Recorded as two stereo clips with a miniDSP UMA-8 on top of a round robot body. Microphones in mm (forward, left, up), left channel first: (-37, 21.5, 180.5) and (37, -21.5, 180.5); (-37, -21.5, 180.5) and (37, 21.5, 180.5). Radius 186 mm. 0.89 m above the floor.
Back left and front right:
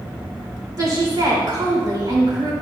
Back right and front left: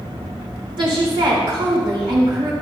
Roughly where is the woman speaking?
Ahead.